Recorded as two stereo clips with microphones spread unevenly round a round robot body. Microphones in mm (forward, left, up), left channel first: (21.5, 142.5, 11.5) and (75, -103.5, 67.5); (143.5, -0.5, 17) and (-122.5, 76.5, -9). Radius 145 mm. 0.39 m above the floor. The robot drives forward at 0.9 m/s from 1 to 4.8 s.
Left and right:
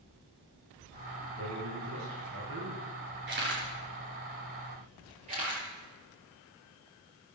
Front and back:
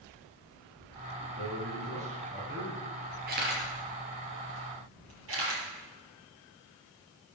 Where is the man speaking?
120° right, 5 m; by 2.9 s 135° right, 6 m.